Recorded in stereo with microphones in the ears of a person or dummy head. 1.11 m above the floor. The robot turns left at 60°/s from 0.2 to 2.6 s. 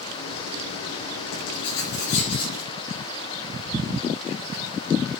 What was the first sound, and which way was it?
Writing, 95° left.